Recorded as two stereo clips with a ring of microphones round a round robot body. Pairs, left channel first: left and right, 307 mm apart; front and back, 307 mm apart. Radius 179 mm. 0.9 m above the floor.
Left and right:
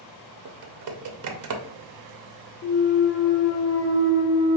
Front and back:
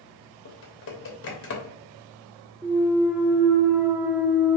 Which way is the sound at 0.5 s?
55° right.